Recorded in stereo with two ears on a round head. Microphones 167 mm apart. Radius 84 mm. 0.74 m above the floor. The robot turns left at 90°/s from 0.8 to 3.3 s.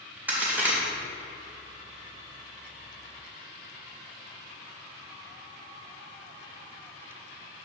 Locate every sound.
0.3 s a crack: 10° right (ahead or behind), 2 m